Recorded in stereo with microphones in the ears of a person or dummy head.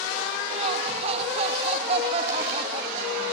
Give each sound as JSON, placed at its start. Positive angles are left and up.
{"t": 0.5, "sound": "laughter", "side_deg": -35}